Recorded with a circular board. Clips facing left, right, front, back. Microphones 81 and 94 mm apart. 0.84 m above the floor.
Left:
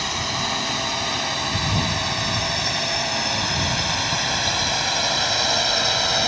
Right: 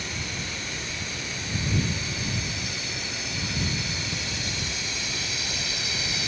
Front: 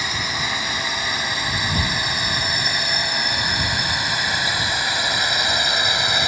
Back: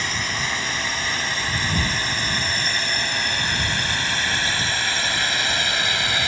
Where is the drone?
80° left; by 6.3 s 70° left.